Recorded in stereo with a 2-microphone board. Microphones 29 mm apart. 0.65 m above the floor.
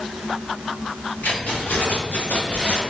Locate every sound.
1.2 s keys jangling: 75° left (ahead or behind), 1.8 m; by 2.8 s 50° left (ahead or behind), 1.4 m